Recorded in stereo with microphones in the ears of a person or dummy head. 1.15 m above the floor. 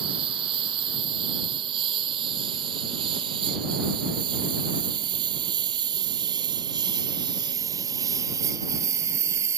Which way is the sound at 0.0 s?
25° right (ahead or behind).